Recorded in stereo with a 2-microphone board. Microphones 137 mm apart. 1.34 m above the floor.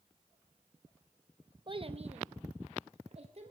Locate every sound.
1.7 s a child speaking: 35° right (ahead or behind), 0.7 m; by 3.5 s 50° right (ahead or behind), 2.0 m